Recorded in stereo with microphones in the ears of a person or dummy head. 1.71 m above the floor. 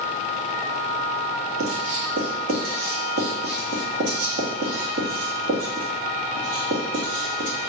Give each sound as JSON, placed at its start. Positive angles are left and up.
{"t": 1.6, "sound": "writing", "side_deg": -80, "distance_m": 3.0}